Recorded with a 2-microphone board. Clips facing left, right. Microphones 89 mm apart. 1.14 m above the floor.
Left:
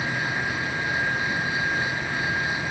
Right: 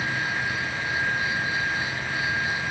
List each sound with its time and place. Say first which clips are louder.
0.0 s an insect: even; 50° left (ahead or behind), 7 m